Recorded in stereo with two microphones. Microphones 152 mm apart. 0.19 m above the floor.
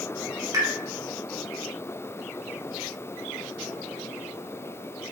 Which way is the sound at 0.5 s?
25° right (ahead or behind).